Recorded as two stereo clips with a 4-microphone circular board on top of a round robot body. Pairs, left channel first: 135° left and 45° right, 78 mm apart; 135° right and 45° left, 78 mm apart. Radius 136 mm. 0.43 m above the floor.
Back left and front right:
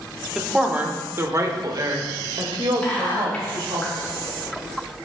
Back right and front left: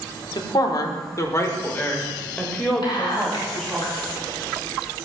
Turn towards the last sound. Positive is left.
turn(degrees=-155)